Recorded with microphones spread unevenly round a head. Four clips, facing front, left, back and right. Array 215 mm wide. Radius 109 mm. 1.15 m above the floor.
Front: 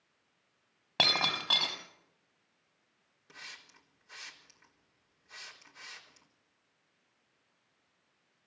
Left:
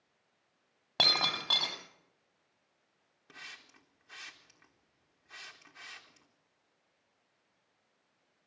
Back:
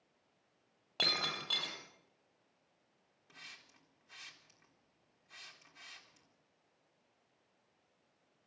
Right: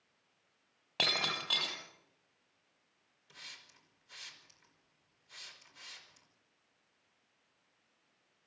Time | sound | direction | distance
1.0 | breaking glass | 30° left | 6.5 m
3.3 | a hiss | 55° left | 4 m